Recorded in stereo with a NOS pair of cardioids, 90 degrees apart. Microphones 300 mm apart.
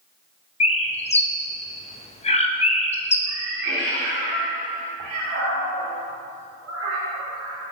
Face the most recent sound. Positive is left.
turn(degrees=-60)